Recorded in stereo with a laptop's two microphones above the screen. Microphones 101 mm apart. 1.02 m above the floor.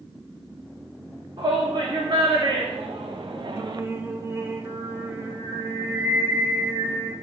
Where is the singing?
25° right (ahead or behind), 1.8 m.